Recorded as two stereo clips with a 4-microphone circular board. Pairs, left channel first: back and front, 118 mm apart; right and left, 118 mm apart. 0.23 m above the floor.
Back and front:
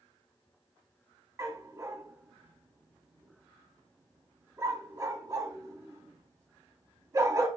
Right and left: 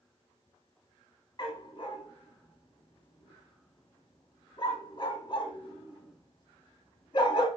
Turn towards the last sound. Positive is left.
turn(degrees=-55)